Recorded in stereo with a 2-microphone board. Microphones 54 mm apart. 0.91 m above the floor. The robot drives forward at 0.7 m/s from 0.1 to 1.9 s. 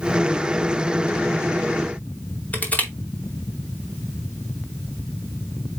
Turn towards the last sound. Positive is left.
turn(degrees=30)  # may be behind; listen again after turning